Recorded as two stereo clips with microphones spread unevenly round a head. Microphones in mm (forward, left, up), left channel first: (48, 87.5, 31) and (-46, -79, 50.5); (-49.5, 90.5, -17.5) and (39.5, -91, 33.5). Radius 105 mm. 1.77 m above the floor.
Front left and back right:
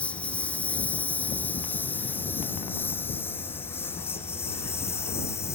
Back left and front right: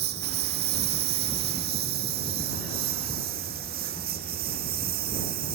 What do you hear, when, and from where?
0.0 s a lawn mower: 25° right; by 5.5 s 15° right